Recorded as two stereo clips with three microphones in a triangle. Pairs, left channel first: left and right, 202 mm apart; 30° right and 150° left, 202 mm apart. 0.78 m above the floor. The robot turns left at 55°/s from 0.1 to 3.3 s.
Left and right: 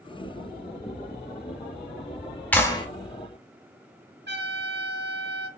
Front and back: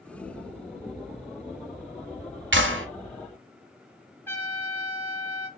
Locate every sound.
2.5 s a clap: 170° left, 0.9 m; by 2.9 s 150° left, 0.9 m
4.3 s a trumpet: 110° right, 0.9 m